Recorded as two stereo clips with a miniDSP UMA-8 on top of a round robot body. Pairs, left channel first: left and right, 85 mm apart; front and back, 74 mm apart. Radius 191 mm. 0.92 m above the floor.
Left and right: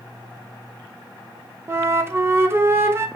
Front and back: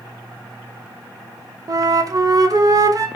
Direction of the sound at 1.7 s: 150° right.